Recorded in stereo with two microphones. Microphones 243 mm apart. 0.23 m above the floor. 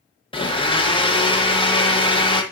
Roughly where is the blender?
Left.